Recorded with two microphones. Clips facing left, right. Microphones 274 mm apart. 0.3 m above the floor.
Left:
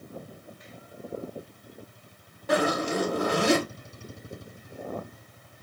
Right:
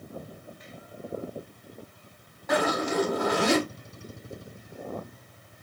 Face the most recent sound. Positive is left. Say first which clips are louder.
# left 1 dB
turn(degrees=35)  # may be behind; listen again after turning